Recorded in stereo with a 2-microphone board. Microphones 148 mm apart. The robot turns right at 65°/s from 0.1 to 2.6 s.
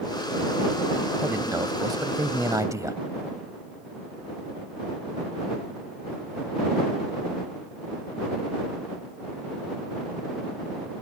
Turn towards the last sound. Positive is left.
turn(degrees=-20)  # may be behind; listen again after turning